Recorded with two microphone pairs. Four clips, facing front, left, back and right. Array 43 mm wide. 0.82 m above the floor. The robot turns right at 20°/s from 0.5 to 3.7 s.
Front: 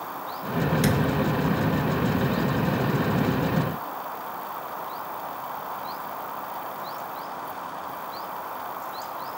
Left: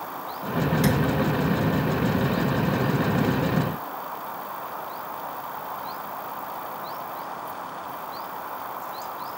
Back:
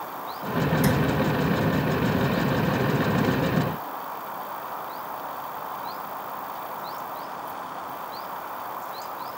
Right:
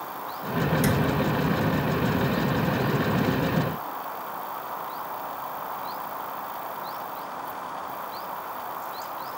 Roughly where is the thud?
Ahead.